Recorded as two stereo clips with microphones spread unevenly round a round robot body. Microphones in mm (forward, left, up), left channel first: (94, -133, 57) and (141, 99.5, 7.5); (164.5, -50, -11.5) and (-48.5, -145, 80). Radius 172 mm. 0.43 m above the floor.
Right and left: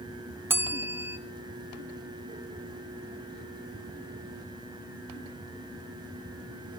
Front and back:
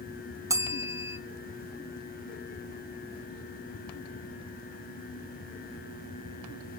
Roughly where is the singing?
No singing in this recording.